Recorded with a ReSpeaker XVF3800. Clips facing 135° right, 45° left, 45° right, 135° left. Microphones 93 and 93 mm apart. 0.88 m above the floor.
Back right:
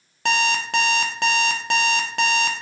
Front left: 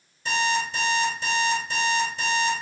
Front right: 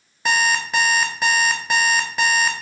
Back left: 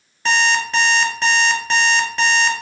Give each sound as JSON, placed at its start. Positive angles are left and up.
{"t": 0.2, "sound": "an alarm clock", "azimuth_deg": -130, "distance_m": 0.5}